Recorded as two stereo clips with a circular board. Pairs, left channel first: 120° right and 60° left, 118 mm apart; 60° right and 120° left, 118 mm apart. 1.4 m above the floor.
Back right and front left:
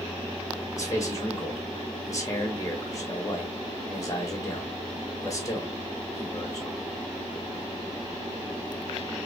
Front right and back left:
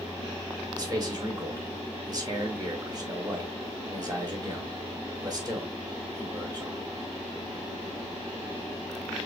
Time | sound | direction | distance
0.8 | a man speaking | 175° left | 1.7 m